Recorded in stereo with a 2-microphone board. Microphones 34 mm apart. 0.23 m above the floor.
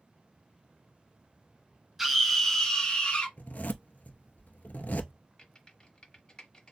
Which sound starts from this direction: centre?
A scream, at 2.0 s.